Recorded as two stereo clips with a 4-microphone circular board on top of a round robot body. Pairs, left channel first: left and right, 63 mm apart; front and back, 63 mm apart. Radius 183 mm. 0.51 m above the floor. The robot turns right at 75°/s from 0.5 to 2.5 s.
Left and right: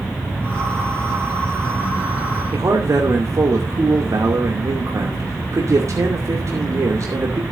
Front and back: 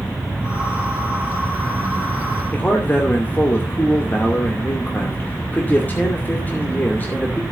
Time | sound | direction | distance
2.5 | a man speaking | 60° right | 2.5 m